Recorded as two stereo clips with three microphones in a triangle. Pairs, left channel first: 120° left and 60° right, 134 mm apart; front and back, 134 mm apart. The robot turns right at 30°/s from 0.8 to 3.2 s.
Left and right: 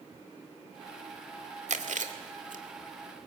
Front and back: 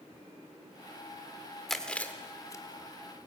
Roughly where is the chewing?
Right.